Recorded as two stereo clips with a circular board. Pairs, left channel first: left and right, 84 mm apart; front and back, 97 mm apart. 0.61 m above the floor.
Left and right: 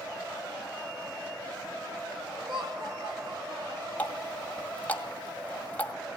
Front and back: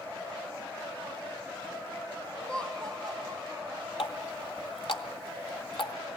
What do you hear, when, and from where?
2.4 s laughter: 80° right, 2.0 m; by 3.9 s 95° right, 2.5 m
4.0 s a running tap: 20° left, 2.0 m